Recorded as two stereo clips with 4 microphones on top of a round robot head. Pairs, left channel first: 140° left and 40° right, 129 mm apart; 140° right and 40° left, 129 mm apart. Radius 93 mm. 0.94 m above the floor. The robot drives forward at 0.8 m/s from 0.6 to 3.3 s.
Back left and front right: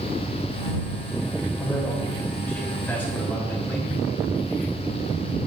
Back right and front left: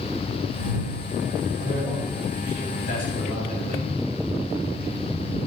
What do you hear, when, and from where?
1.6 s a man speaking: 140° right, 7.5 m; by 3.9 s 145° right, 8.5 m